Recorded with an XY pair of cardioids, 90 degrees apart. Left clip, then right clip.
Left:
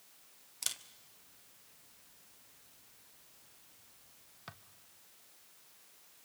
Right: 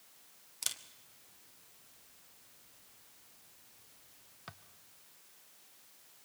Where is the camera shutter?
Straight ahead, 1.0 m.